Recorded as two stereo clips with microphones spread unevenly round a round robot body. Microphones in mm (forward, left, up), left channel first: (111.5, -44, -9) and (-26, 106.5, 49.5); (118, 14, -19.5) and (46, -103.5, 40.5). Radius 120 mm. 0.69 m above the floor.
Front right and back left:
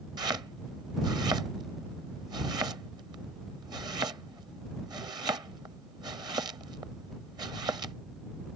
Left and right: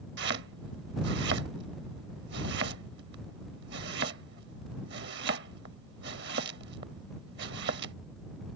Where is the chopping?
150° right.